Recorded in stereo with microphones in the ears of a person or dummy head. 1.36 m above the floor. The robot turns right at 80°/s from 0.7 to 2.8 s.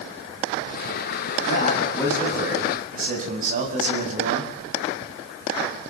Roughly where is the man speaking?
Behind left.